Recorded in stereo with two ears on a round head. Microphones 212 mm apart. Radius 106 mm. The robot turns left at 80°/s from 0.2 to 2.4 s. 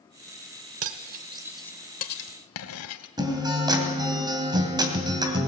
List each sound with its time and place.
0.8 s cutlery clinking: 60° right (ahead or behind), 1.2 m; by 3.1 s 65° left (ahead or behind), 1.2 m
3.2 s a guitar: 15° right (ahead or behind), 2.5 m